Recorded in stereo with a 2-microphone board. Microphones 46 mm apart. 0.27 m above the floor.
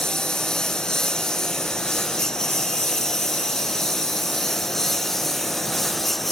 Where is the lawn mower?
15° left (ahead or behind); by 6.3 s 5° left (ahead or behind).